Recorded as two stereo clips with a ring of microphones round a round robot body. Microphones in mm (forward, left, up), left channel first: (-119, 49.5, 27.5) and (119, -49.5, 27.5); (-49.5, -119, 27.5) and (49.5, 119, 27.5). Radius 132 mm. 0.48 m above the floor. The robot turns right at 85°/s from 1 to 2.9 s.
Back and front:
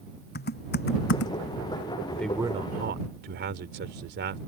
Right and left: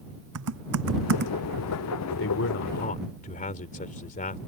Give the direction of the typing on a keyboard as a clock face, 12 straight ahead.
9 o'clock.